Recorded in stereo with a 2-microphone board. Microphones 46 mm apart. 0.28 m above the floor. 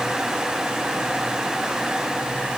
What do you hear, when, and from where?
Only background noise.